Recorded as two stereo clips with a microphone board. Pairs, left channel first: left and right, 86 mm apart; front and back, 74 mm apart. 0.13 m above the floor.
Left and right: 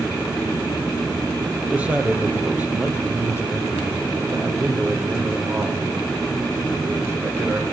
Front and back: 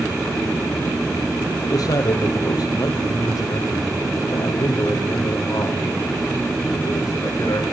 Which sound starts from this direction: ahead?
A man speaking, at 1.5 s.